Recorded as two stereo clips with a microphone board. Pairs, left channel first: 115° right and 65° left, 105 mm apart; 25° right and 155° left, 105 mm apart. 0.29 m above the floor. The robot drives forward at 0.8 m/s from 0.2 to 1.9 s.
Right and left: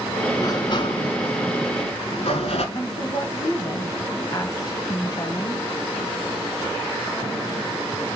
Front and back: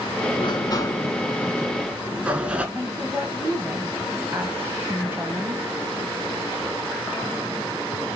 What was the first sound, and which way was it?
A sliding door, 55° right.